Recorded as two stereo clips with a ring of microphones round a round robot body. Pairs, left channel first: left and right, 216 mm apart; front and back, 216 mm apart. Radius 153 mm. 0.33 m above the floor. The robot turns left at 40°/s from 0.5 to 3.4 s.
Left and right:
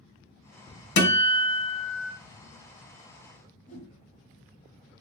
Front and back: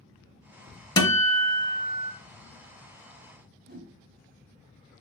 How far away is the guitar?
About 0.8 m.